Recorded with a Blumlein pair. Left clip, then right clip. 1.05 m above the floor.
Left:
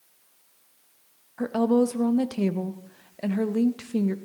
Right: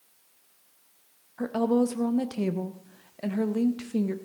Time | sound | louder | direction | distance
1.4 | a woman speaking | left 3 dB | 5° left | 0.8 m